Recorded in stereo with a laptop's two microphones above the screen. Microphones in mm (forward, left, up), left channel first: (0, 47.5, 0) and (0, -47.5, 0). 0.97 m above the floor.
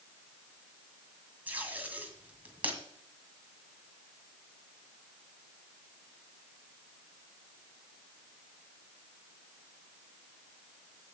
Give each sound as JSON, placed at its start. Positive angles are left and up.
{"t": 1.5, "sound": "tape being pulled", "side_deg": -15, "distance_m": 1.8}